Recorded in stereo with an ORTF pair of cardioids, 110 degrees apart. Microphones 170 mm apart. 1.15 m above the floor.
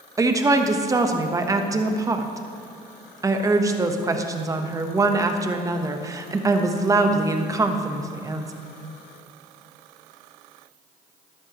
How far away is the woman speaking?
About 1.0 m.